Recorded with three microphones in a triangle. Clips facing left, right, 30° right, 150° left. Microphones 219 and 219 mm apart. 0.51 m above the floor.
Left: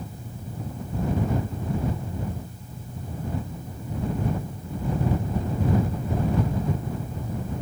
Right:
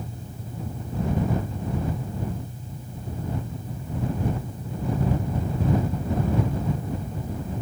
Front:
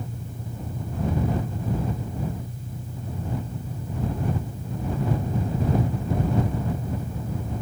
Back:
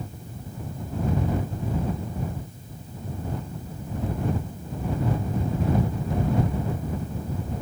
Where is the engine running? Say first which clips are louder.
Even, front 2 dB; 25° right.